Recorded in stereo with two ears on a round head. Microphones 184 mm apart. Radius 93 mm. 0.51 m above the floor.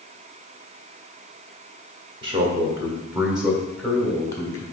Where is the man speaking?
25° right (ahead or behind), 1.5 m; by 4.6 s 20° left (ahead or behind), 1.6 m.